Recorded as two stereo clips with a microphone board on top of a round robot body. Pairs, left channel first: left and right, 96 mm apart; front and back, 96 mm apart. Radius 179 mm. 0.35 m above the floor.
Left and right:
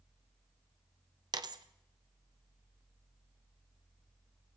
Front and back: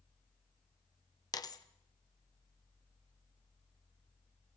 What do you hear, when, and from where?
1.3 s a dropped coin: 50° right, 0.8 m